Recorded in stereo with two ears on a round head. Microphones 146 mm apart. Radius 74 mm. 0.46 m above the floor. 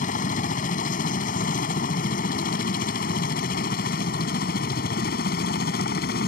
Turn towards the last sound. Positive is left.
turn(degrees=65)  # may be behind; listen again after turning